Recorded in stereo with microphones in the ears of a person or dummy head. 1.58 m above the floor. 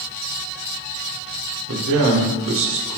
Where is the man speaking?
65° right (ahead or behind), 0.9 m.